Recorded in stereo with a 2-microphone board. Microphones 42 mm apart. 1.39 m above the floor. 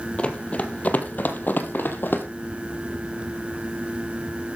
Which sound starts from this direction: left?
Running footsteps, at 0.2 s.